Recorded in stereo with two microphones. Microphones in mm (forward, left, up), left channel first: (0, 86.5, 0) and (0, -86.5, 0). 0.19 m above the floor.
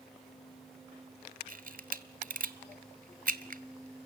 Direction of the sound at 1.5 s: 55° right (ahead or behind).